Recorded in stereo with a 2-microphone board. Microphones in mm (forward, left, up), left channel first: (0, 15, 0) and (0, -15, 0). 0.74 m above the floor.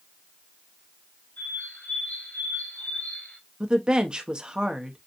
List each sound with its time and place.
1.4 s a bird: 75° left (ahead or behind), 3.5 m
3.6 s a woman speaking: 30° right (ahead or behind), 0.9 m